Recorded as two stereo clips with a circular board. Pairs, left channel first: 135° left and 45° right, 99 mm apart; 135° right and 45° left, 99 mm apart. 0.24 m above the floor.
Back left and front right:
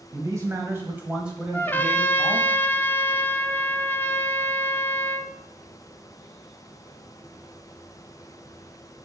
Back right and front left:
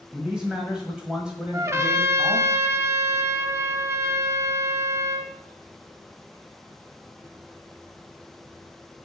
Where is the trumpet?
80° left, 0.5 m.